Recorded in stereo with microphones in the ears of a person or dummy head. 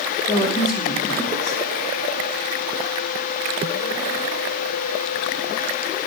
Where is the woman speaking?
25° left (ahead or behind), 1.9 m.